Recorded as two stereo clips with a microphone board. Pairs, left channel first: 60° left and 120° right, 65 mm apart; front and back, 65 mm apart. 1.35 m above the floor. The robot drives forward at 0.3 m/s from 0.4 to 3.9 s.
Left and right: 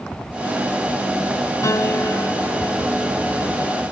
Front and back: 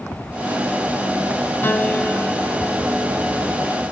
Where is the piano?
50° left, 0.5 m; by 3.6 s 135° left, 0.6 m.